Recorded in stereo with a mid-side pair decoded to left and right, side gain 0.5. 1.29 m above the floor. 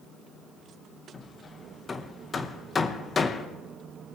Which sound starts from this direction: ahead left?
Hammering, at 1.1 s.